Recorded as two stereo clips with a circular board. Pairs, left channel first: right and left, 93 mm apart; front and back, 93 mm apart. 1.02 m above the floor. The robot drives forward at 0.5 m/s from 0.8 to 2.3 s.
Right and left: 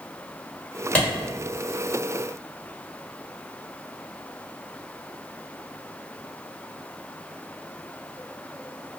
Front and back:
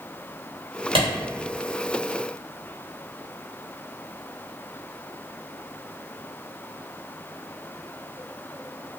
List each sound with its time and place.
0.9 s a clap: 165° right, 1.4 m